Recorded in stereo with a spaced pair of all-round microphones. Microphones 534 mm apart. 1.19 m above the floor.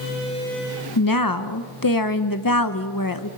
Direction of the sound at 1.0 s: 40° left (ahead or behind).